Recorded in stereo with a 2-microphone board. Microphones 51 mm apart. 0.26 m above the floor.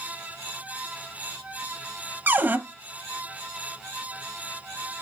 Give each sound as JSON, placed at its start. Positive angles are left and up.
{"t": 2.3, "sound": "a cupboard door", "side_deg": -40, "distance_m": 0.7}